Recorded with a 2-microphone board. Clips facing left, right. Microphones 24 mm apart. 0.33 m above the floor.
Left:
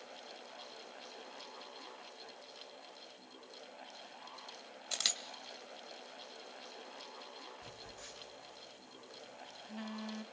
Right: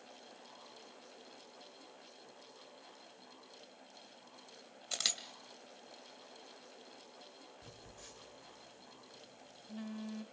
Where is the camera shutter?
Centre (ahead or behind), 2 m.